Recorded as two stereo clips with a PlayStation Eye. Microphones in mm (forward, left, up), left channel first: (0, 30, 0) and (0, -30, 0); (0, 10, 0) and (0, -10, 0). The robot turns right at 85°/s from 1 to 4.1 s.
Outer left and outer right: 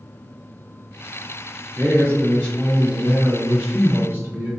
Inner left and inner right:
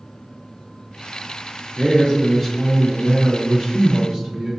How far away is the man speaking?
About 1.4 m.